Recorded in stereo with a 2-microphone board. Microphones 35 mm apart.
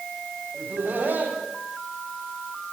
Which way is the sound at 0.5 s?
65° right (ahead or behind).